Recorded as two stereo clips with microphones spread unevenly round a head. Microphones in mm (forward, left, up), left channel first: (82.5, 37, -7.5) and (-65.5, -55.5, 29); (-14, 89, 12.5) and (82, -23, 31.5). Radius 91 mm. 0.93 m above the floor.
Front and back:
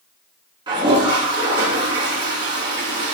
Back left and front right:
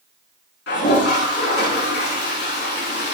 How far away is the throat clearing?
I don't hear throat clearing.